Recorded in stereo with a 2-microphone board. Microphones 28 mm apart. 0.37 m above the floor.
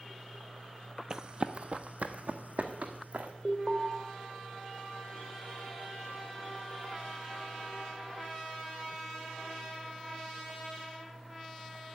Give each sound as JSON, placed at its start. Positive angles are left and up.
{"t": 1.1, "sound": "running footsteps", "side_deg": -25, "distance_m": 0.5}
{"t": 3.5, "sound": "an alarm", "side_deg": -25, "distance_m": 1.9}